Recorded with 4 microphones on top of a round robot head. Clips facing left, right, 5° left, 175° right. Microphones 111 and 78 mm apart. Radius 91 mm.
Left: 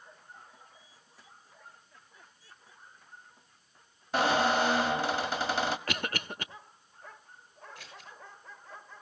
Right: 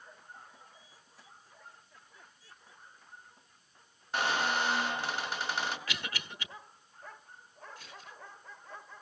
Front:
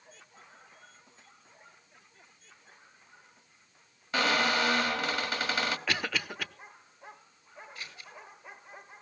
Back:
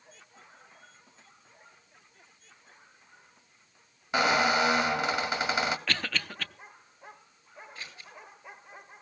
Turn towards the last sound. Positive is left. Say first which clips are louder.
# left 1 dB, back 1 dB
turn(degrees=120)